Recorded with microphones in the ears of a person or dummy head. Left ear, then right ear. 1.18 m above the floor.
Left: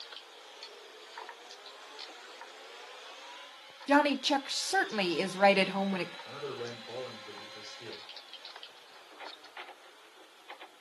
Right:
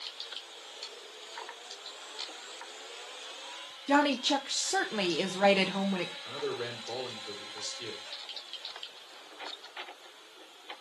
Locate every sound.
3.9 s a woman speaking: 15° left (ahead or behind), 0.7 m
6.2 s a man speaking: 80° right, 4 m